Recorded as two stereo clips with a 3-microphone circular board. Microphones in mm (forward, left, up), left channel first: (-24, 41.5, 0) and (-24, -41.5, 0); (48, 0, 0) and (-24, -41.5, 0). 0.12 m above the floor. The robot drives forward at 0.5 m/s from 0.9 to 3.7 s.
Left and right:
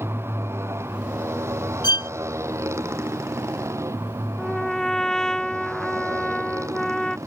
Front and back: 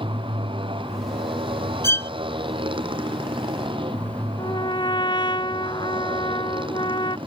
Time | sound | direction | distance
0.0 | a motorcycle | 150° right | ?
1.8 | a violin | 85° left | ?
4.4 | a trumpet | 5° left | ?